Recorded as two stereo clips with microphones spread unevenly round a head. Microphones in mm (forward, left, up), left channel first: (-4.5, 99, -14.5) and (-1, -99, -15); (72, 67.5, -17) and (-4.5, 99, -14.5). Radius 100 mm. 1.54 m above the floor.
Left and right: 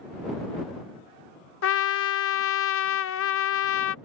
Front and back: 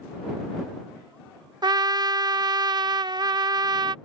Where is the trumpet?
115° left.